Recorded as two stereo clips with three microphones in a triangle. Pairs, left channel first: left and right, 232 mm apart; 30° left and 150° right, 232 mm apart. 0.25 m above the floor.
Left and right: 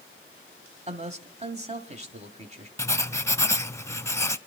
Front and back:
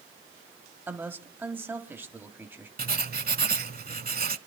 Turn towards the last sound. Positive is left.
turn(degrees=170)